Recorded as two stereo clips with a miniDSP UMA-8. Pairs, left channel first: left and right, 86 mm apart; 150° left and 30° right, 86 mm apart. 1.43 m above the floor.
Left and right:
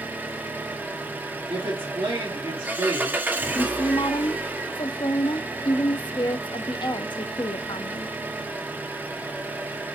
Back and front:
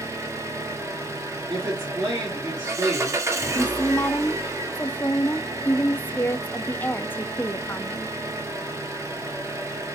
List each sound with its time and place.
0.0 s an engine running: 35° right, 0.9 m
1.5 s a woman speaking: 75° right, 3.5 m
3.5 s a woman speaking: 85° left, 0.5 m